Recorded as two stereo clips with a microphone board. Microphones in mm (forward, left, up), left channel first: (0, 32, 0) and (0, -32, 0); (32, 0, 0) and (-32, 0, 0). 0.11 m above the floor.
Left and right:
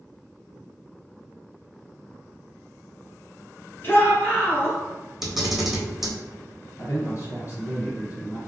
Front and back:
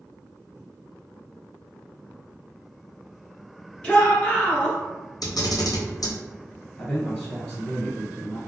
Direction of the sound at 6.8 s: 65° left.